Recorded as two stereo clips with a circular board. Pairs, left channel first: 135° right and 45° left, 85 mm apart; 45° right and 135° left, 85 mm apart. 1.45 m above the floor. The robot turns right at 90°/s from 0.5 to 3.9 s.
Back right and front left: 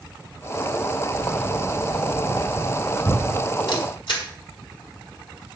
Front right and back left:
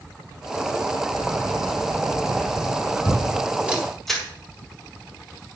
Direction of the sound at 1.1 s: 125° left.